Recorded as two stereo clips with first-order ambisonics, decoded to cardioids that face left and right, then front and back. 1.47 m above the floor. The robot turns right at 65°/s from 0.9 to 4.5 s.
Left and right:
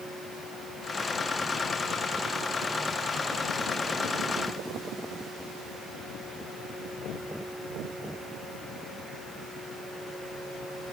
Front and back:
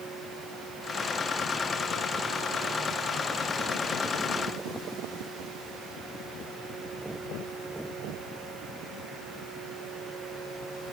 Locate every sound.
Only background noise.